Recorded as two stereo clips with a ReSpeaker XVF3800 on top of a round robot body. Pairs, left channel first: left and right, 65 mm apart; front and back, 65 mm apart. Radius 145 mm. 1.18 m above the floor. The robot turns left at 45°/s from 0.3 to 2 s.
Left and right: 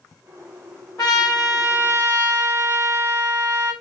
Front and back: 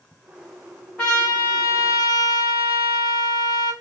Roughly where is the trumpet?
Left.